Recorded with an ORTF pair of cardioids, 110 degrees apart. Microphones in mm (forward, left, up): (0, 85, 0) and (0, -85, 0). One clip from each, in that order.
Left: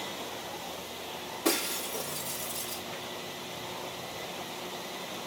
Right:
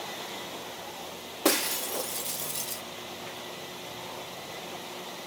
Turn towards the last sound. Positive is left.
turn(degrees=-50)